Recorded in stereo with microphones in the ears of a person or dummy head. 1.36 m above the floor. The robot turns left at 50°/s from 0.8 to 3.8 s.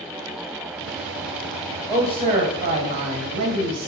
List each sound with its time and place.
1.9 s a man speaking: 15° right, 1.2 m; by 3.9 s 110° right, 1.2 m